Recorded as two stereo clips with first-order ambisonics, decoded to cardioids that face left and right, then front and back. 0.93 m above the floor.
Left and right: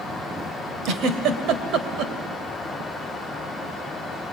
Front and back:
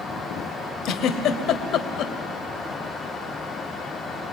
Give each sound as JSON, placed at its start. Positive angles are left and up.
{"t": 0.8, "sound": "a giggle", "azimuth_deg": -45, "distance_m": 1.7}